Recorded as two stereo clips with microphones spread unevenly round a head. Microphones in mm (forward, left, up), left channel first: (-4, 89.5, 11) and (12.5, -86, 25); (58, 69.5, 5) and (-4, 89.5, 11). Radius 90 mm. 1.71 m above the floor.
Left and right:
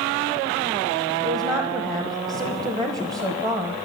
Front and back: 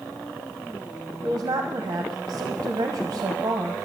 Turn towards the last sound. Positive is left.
turn(degrees=-150)